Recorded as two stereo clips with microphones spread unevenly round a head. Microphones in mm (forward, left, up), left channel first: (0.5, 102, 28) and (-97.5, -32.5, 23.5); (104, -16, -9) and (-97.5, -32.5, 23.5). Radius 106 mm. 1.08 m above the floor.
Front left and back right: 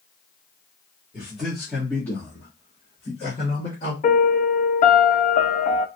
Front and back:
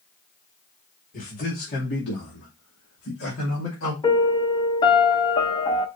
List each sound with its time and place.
1.1 s a man speaking: 40° right, 2 m; by 3.9 s 5° right, 2.5 m
4.0 s a piano: 75° left, 0.8 m